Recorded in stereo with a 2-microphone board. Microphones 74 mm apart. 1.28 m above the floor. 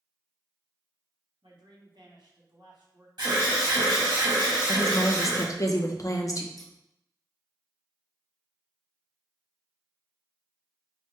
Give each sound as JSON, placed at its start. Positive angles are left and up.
{"t": 1.4, "sound": "a man speaking", "side_deg": -75, "distance_m": 1.1}
{"t": 3.2, "sound": "an alarm", "side_deg": -75, "distance_m": 1.7}
{"t": 4.7, "sound": "a woman speaking", "side_deg": 45, "distance_m": 0.5}
{"t": 6.6, "sound": "scissors", "side_deg": 5, "distance_m": 0.6}